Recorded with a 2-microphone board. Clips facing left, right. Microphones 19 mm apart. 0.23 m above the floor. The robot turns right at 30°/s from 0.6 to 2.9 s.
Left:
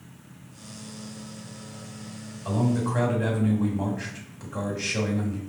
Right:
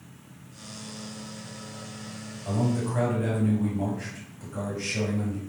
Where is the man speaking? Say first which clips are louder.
Left 2 dB; 35° left (ahead or behind), 1.3 m; by 5.4 s 30° left (ahead or behind), 1.3 m.